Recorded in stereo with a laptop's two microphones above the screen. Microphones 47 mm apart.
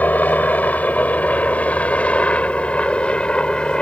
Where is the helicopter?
35° left (ahead or behind); by 3.8 s 20° left (ahead or behind).